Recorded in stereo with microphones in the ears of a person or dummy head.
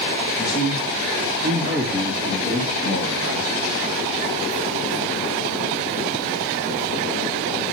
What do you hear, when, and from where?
0.4 s a man speaking: 55° left (ahead or behind), 1.7 m; by 3.5 s 25° left (ahead or behind), 3.5 m